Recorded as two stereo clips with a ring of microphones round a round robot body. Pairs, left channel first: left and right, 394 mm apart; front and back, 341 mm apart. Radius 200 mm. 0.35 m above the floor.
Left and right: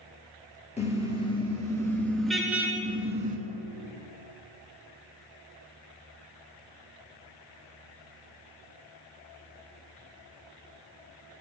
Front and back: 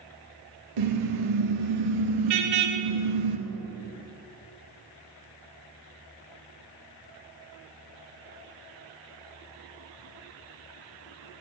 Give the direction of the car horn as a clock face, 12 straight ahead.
7 o'clock.